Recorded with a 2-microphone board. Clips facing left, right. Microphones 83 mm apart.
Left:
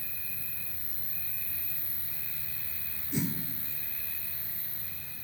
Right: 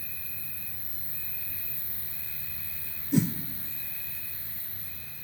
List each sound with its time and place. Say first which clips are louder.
0.0 s an insect: even; 55° right (ahead or behind), 1.2 m
3.1 s a whoosh: right 7 dB; 75° right (ahead or behind), 0.5 m